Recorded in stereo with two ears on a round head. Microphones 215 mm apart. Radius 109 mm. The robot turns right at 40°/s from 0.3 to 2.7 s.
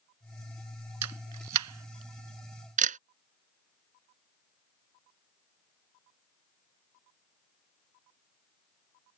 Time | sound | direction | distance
1.0 | a camera shutter | 80° right | ?